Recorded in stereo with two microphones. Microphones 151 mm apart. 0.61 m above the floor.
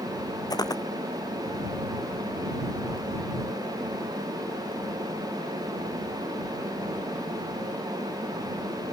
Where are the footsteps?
25° left (ahead or behind).